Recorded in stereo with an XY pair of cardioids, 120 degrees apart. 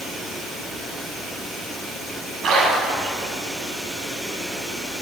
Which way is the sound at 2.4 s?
55° right.